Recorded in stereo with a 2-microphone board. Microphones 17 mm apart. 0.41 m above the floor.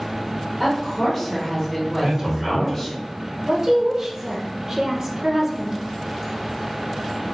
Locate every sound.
0.6 s a woman speaking: 5° left (ahead or behind), 0.9 m
2.0 s a man speaking: 35° right (ahead or behind), 1.5 m
3.4 s a woman speaking: 30° right (ahead or behind), 0.9 m